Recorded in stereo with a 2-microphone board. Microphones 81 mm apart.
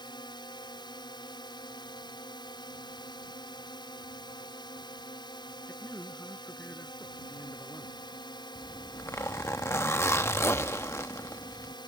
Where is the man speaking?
25° left (ahead or behind).